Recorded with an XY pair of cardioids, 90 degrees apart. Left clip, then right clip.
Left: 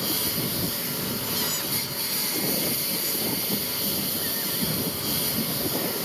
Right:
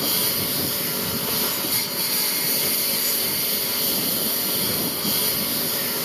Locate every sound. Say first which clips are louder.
0.0 s a lawn mower: right 4 dB; 40° right